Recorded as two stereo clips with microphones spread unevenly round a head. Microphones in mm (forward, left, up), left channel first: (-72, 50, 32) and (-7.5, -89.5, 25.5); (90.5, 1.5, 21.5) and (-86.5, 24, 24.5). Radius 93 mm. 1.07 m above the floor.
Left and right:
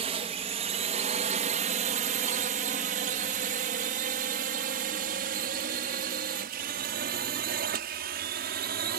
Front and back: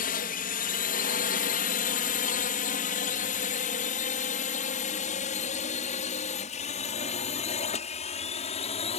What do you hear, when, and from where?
0.0 s a drone: 25° right; by 9.0 s 60° right